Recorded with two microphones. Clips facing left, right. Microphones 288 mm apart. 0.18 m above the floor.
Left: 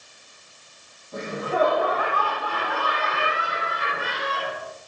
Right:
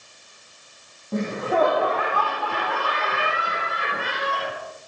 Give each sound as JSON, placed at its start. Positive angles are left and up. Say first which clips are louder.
{"t": 1.1, "sound": "laughter", "louder": "right 3 dB", "side_deg": -65, "distance_m": 6.0}